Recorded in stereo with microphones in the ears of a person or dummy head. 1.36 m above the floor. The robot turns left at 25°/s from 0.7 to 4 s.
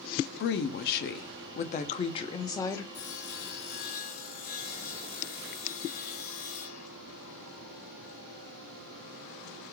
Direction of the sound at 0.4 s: 75° left.